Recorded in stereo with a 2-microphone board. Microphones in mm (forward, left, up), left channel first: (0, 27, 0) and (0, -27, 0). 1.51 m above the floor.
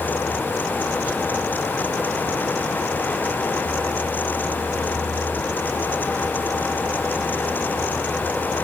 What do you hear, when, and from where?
Only background noise.